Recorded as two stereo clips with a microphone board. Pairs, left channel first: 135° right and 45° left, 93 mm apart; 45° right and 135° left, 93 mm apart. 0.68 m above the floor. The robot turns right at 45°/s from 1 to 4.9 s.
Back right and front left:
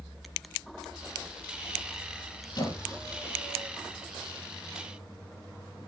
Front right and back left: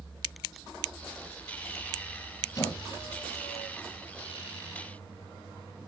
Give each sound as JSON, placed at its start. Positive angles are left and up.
{"t": 2.5, "sound": "a squeak", "azimuth_deg": -100, "distance_m": 5.0}